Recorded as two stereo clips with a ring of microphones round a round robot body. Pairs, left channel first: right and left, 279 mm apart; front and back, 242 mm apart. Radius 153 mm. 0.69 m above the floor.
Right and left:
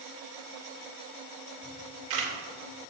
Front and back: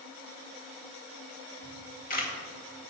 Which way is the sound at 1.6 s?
55° left.